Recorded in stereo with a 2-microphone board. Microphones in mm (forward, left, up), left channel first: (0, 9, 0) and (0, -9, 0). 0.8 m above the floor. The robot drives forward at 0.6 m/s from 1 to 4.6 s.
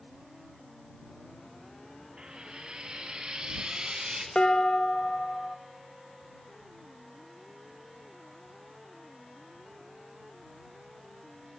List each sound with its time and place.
2.2 s frying: 70° right (ahead or behind), 3 m; by 4.2 s 55° right (ahead or behind), 4 m
4.3 s dishes clattering: 70° left (ahead or behind), 1.3 m; by 5.5 s 75° left (ahead or behind), 1.3 m